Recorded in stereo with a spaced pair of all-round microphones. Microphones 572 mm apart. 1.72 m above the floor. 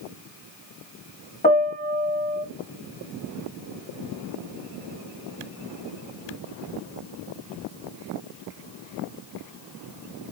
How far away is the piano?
About 1.9 m.